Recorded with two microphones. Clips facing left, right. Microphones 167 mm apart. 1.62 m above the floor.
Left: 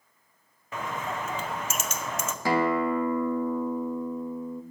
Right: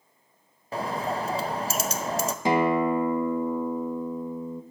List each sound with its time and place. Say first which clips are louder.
0.7 s a bird: right 4 dB; 35° right (ahead or behind), 0.6 m
2.5 s a guitar: right 2 dB; 20° right (ahead or behind), 0.6 m